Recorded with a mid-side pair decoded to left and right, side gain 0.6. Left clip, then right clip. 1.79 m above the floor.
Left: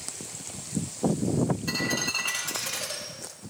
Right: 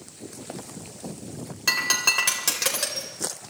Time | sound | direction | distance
1.7 | breaking glass | 70° right | 4.5 m